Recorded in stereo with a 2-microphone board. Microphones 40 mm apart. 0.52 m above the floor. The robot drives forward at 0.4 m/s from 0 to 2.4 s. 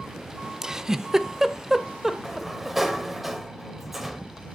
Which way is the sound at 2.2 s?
5° right (ahead or behind).